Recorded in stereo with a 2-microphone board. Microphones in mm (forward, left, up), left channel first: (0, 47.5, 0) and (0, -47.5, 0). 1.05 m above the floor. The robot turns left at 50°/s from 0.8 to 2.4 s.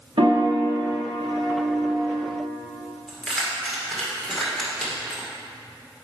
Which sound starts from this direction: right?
A piano, at 0.2 s.